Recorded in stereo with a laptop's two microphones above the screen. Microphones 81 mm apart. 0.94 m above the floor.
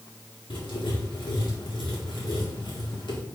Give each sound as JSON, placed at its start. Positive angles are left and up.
{"t": 0.5, "sound": "writing", "side_deg": 80, "distance_m": 2.0}